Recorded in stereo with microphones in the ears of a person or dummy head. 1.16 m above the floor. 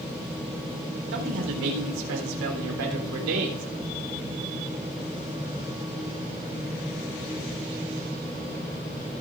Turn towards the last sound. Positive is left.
turn(degrees=-85)